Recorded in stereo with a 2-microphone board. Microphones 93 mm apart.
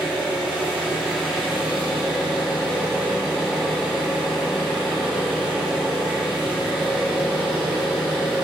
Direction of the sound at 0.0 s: 10° right (ahead or behind).